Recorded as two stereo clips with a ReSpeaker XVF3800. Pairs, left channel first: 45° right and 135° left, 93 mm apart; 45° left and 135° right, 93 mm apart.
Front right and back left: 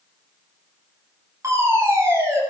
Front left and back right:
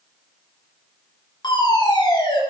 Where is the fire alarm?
80° left, 7 m.